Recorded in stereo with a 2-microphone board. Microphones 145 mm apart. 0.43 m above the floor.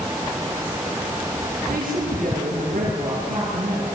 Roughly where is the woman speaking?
Right.